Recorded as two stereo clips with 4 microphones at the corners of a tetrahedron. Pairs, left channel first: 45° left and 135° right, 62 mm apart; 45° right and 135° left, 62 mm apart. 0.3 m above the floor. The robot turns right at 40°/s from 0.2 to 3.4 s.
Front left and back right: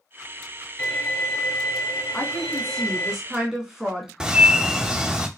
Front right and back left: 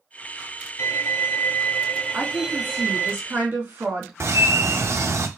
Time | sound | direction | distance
0.8 | a violin | 20° right | 1.0 m
2.1 | a woman speaking | 105° left | 1.3 m
4.2 | a bird | 150° left | 0.6 m